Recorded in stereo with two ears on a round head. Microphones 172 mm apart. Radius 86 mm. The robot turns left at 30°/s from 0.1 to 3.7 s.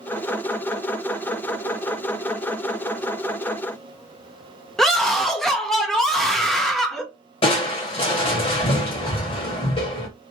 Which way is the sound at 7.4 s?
30° left (ahead or behind).